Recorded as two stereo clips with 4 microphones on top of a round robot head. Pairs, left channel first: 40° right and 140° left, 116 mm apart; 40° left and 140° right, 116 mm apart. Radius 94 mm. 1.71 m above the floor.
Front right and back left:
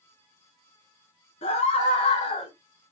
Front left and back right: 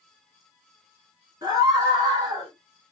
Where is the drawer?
No drawer in this recording.